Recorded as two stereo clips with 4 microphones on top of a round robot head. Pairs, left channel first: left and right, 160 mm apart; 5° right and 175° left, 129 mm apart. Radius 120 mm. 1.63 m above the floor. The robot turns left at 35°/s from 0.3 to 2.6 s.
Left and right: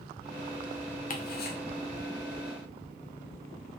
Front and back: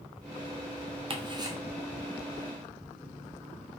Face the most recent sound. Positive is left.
turn(degrees=70)